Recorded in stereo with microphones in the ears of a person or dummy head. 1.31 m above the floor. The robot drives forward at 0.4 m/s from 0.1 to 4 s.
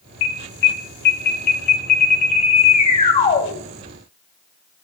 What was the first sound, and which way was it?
An alarm, 70° left (ahead or behind).